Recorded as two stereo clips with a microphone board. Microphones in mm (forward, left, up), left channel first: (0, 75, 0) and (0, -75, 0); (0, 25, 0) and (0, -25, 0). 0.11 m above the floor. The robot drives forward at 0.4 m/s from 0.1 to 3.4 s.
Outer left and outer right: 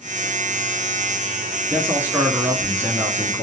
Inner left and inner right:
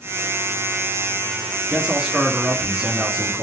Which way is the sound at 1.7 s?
15° right (ahead or behind).